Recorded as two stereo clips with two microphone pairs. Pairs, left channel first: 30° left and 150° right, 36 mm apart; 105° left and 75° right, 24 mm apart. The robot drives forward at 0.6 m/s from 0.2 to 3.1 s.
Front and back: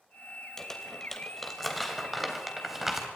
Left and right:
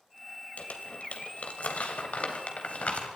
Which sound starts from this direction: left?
Crumpling, at 0.6 s.